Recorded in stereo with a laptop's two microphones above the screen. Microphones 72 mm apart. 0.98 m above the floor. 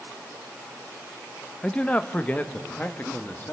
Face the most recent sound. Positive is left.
turn(degrees=25)  # may be behind; listen again after turning